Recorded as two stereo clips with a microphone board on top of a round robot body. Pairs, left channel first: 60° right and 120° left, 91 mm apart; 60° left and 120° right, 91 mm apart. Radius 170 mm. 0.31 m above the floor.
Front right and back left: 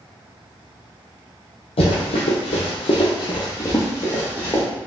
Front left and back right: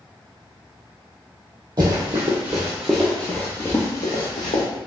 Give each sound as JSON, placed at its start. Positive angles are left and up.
{"t": 1.8, "sound": "running footsteps", "azimuth_deg": -70, "distance_m": 1.0}